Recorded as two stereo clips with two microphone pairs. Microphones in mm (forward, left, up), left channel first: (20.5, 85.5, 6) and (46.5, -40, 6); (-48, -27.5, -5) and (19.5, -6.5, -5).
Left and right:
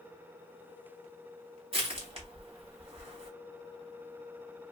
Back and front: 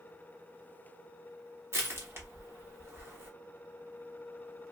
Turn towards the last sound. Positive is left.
turn(degrees=-35)